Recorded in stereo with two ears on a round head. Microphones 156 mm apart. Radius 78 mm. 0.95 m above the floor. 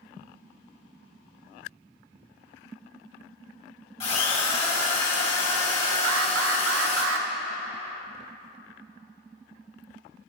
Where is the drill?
35° left (ahead or behind), 2.5 m.